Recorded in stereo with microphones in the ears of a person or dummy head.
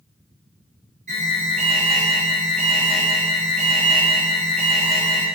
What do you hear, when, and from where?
1.1 s an alarm: 35° right (ahead or behind), 3 m